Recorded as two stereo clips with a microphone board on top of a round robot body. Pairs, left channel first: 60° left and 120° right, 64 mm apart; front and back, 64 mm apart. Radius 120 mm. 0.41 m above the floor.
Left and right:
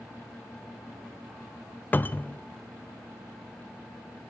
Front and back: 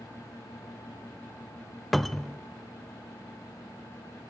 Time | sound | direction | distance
1.9 | a cupboard door | 85° left | 0.5 m